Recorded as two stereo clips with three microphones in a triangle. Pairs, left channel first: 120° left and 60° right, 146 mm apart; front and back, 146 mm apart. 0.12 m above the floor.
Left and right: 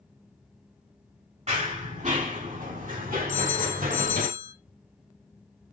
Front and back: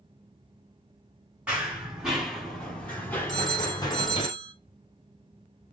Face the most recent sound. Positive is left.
turn(degrees=-85)